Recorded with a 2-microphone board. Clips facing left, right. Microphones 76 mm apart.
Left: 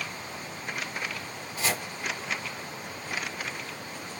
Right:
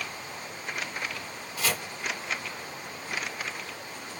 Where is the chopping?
25° left (ahead or behind), 2.0 m.